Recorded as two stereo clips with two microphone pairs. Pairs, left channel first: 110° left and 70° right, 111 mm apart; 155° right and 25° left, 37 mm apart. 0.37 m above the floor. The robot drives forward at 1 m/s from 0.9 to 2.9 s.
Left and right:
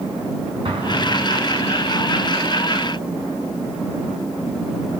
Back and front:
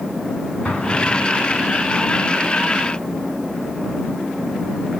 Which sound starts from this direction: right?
An explosion, at 0.7 s.